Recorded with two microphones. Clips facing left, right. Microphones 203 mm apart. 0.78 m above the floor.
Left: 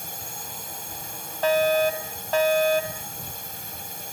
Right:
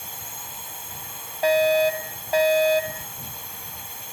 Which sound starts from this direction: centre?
A fire alarm, at 1.4 s.